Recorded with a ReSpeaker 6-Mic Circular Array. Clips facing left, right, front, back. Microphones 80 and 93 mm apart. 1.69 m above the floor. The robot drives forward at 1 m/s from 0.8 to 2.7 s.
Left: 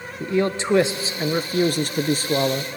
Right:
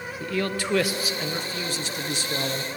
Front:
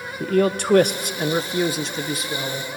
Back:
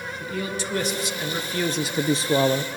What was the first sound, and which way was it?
A man speaking, 25° left.